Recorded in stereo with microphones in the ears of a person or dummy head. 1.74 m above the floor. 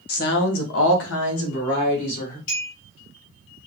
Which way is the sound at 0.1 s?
60° left (ahead or behind).